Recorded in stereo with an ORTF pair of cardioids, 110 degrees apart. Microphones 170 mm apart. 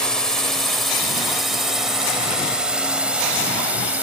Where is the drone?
5° left; by 4.0 s 10° right.